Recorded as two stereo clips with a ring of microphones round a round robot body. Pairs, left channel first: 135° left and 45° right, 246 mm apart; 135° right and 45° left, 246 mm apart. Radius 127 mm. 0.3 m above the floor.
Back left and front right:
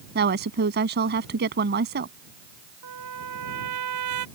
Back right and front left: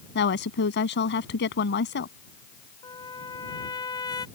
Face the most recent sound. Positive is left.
turn(degrees=-60)